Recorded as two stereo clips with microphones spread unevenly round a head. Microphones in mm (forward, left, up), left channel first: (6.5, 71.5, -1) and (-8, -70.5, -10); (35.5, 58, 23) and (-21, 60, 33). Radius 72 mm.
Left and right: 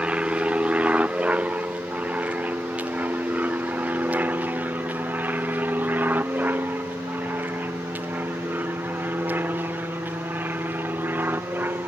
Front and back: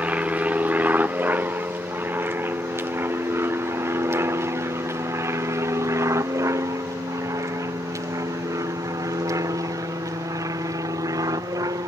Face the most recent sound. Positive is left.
turn(degrees=-170)